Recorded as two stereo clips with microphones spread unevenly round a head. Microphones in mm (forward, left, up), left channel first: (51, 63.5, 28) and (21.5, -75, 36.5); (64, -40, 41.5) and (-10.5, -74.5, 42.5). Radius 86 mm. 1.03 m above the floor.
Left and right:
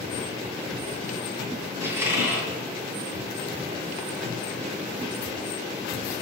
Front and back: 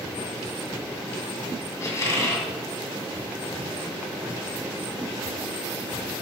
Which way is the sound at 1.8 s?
30° right.